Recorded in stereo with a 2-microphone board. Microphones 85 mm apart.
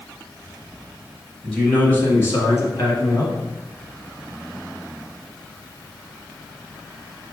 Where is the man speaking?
10° left (ahead or behind), 1.3 m; by 3.3 s 55° left (ahead or behind), 1.9 m.